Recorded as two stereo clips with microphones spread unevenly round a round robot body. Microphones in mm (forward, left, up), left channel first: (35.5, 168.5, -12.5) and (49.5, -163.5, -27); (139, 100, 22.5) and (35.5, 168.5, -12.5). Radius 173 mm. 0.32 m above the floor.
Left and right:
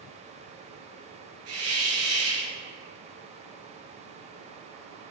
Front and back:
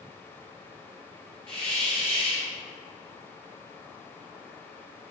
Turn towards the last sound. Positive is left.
turn(degrees=-140)